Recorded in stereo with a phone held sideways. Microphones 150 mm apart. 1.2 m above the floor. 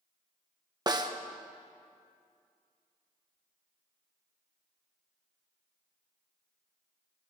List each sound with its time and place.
0.9 s a snare drum: 30° right (ahead or behind), 0.8 m